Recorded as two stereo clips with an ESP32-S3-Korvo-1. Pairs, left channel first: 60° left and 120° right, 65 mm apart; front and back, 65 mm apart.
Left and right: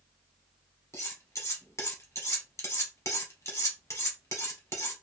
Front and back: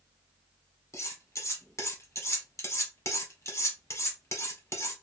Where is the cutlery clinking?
30° left, 1.6 m.